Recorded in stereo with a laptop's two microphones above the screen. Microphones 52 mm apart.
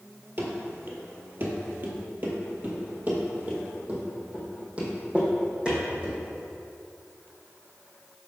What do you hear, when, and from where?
0.4 s running footsteps: 45° right (ahead or behind), 1.4 m; by 6.2 s 20° right (ahead or behind), 3 m